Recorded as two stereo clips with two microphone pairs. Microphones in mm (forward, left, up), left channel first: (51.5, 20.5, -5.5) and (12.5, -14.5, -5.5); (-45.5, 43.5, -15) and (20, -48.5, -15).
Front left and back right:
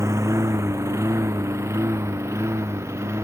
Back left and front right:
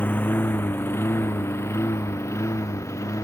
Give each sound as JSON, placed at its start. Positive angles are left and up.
{"t": 0.0, "sound": "a lawn mower", "azimuth_deg": -160}